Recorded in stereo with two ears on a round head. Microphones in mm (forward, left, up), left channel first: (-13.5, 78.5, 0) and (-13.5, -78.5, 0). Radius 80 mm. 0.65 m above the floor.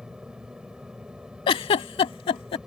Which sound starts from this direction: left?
A giggle, at 1.5 s.